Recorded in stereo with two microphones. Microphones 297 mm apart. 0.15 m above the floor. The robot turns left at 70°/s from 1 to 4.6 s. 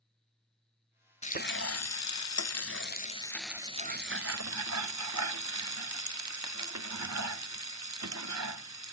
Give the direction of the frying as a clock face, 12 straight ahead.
7 o'clock.